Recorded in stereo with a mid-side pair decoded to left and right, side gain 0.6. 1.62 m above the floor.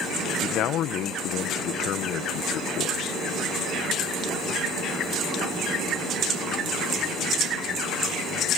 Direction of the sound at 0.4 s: 60° left.